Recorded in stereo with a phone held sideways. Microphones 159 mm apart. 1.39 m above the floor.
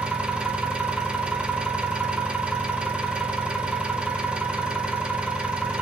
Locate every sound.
0.0 s an engine running: 5° right (ahead or behind), 1.1 m